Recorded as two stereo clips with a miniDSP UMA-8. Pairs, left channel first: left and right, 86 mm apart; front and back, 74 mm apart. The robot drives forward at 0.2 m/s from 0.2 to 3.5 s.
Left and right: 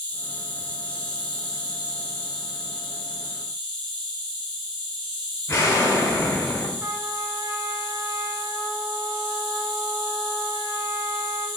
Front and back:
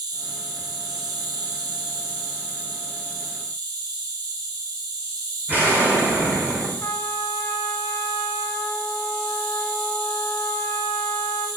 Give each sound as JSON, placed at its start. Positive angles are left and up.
{"t": 0.0, "sound": "an insect", "azimuth_deg": 165, "distance_m": 0.8}
{"t": 5.5, "sound": "an explosion", "azimuth_deg": 130, "distance_m": 0.8}
{"t": 6.8, "sound": "a trumpet", "azimuth_deg": -35, "distance_m": 0.5}